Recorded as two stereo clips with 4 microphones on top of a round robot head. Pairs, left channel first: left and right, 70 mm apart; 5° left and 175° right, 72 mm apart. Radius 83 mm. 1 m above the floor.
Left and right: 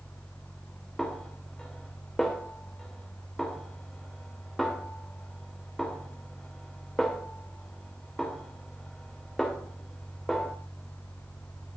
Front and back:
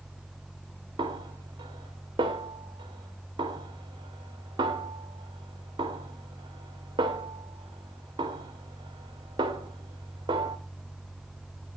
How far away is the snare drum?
About 2 m.